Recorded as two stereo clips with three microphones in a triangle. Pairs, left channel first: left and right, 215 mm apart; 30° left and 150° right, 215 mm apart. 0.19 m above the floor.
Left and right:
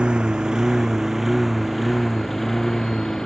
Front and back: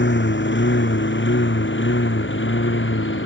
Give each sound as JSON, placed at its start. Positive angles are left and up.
{"t": 0.0, "sound": "a lawn mower", "azimuth_deg": -5}